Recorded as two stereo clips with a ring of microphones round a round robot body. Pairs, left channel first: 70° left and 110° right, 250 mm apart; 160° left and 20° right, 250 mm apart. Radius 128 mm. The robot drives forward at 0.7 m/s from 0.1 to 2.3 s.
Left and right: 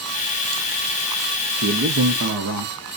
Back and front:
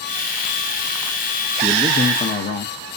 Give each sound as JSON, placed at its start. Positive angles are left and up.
{"t": 1.6, "sound": "a man speaking", "azimuth_deg": -95, "distance_m": 0.7}